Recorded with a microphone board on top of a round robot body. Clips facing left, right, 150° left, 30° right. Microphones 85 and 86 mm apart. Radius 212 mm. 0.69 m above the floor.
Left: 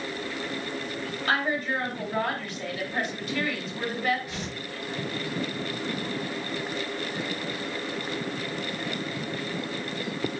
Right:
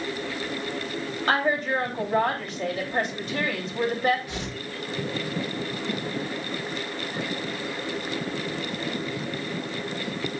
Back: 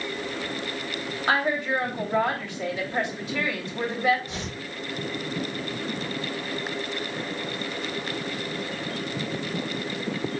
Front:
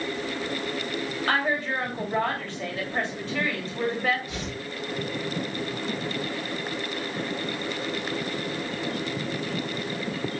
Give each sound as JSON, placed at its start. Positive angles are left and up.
{"t": 1.3, "sound": "a woman speaking", "azimuth_deg": -140, "distance_m": 2.5}
{"t": 4.3, "sound": "tearing paper", "azimuth_deg": -155, "distance_m": 2.5}